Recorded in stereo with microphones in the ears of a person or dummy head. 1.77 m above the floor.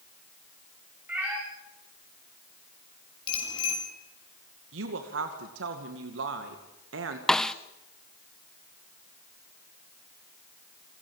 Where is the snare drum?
5° left (ahead or behind), 0.7 m.